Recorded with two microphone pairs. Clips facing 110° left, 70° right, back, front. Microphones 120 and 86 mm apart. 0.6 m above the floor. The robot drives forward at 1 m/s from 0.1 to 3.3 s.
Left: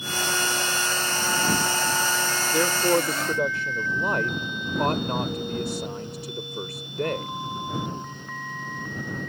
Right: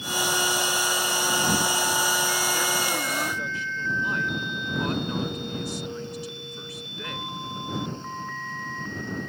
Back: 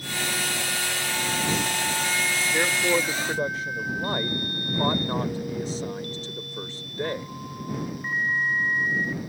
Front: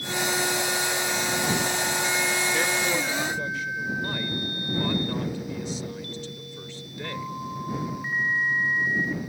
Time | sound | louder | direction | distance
2.5 | a man speaking | left 6 dB, back 2 dB | 110° left | ?